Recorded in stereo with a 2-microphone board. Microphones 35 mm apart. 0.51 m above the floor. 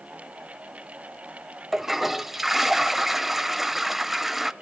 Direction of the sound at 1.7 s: 5° right (ahead or behind).